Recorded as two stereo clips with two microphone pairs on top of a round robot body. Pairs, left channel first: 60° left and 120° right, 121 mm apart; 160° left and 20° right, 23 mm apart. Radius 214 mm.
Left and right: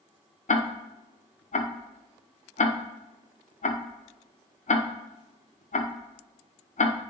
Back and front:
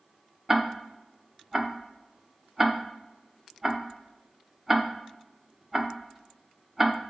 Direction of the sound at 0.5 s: 60° left.